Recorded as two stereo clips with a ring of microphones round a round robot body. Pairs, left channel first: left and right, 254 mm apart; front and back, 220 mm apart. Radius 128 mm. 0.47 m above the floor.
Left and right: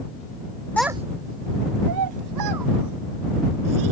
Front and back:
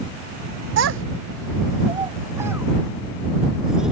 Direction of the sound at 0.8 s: 175° left.